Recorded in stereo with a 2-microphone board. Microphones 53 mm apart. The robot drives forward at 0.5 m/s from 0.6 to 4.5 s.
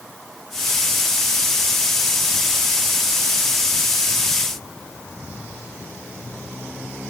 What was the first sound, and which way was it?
Only background noise.